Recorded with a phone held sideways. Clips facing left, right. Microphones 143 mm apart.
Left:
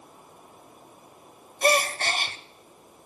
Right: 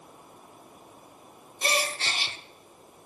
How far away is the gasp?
About 0.9 m.